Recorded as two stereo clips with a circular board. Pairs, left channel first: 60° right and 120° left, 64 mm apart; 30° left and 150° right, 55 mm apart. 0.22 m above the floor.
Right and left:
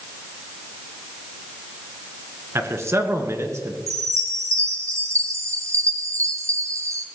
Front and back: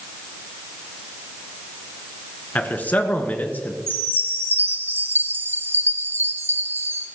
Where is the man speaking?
85° left, 2 m.